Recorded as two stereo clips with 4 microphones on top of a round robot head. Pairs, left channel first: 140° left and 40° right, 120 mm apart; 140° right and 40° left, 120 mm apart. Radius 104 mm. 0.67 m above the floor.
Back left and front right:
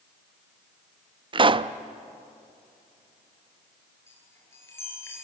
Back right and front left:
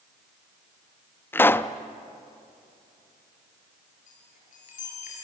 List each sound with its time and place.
1.3 s a pop: 70° right, 0.7 m
4.1 s a chime: 150° right, 6.5 m